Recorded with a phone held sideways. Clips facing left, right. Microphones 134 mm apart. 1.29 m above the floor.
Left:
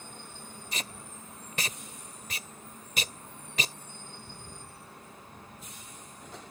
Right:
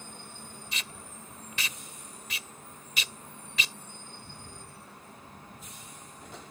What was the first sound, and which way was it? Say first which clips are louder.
Tape being pulled: left 5 dB; 45° left (ahead or behind).